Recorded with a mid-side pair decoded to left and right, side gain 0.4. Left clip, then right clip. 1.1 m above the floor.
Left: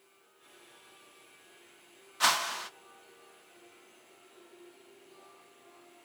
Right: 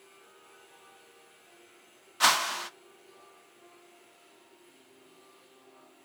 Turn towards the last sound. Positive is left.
turn(degrees=-20)